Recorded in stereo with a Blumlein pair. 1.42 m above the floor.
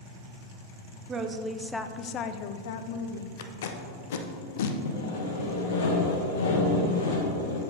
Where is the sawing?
65° left, 1.7 m.